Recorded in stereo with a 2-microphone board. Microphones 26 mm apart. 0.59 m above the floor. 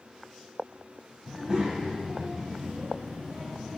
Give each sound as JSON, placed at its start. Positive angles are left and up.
{"t": 1.2, "sound": "a child speaking", "side_deg": -25, "distance_m": 2.5}